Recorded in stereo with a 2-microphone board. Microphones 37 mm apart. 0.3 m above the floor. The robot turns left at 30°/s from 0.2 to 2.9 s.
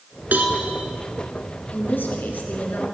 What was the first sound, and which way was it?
A cowbell, 60° right (ahead or behind).